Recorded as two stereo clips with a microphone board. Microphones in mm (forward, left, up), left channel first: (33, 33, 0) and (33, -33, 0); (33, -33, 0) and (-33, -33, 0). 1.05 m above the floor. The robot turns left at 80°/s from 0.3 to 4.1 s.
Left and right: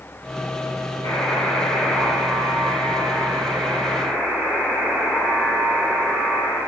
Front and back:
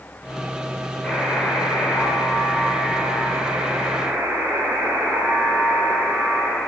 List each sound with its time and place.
1.0 s a buzzer: 80° left, 4 m; by 6.6 s 165° right, 4 m